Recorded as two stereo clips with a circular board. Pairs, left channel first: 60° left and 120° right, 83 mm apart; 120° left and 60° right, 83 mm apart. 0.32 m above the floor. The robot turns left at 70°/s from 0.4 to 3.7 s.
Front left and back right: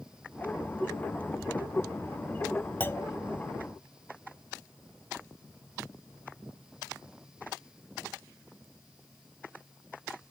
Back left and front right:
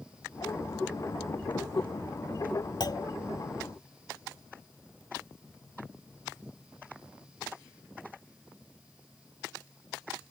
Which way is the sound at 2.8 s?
120° left.